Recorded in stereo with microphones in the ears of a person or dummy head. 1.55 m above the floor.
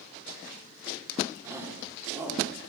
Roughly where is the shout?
Centre.